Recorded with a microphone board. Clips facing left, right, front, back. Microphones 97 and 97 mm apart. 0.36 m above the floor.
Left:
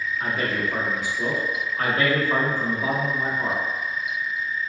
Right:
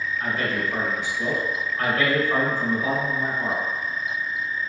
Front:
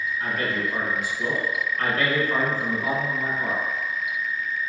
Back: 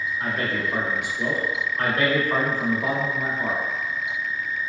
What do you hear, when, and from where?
0.2 s a man speaking: 145° left, 0.9 m